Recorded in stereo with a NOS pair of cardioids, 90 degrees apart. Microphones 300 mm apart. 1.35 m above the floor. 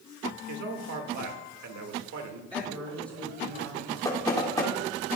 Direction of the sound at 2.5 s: 15° right.